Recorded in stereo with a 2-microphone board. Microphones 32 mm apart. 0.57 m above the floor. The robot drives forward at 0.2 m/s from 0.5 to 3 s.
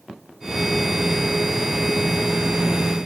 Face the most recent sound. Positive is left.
No sound to turn to.